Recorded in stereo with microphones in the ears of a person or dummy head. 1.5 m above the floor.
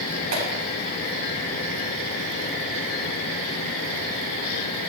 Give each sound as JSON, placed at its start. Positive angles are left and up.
{"t": 0.3, "sound": "a clap", "side_deg": -85, "distance_m": 7.5}